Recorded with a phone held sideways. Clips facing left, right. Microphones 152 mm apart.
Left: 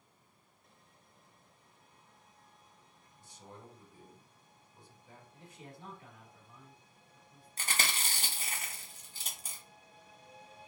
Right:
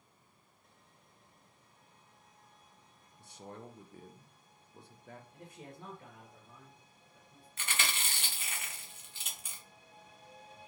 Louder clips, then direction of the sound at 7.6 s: Left 1 dB; 35° left (ahead or behind).